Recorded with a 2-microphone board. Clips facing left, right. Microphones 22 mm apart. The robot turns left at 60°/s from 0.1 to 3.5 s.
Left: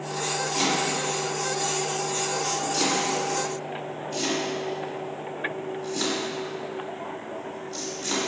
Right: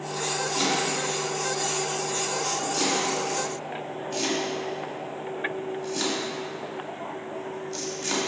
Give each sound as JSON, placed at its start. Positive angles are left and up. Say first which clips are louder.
{"t": 0.6, "sound": "chopping", "louder": "left 1 dB", "side_deg": 30, "distance_m": 1.5}